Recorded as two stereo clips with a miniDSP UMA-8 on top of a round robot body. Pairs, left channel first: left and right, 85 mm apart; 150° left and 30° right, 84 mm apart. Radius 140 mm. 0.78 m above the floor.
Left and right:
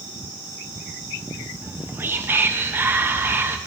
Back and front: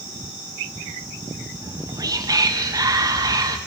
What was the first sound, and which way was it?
Whispering, 35° right.